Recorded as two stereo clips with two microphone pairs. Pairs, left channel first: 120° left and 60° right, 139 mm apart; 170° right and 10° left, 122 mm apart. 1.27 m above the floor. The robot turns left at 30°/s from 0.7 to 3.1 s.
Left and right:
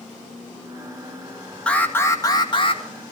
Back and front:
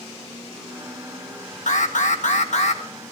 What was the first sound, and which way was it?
An alarm, 160° right.